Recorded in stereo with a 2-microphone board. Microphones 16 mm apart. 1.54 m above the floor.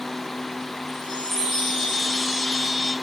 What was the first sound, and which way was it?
A chime, 35° left (ahead or behind).